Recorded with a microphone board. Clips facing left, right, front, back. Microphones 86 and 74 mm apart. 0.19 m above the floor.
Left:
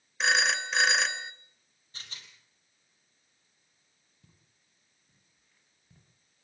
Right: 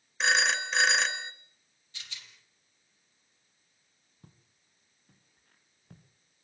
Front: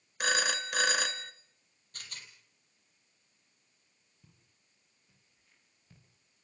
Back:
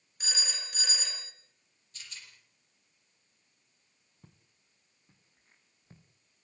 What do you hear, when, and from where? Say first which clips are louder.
0.2 s a phone ringing: even, front 11 dB; straight ahead, 2.0 m
1.9 s a rattle: even, front 2 dB; 40° left, 4.5 m
4.2 s footsteps: right 7 dB, back 5 dB; 135° right, 6 m; by 6.0 s 120° right, 8 m